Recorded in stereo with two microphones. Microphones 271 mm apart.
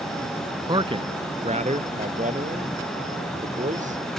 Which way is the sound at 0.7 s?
15° right (ahead or behind).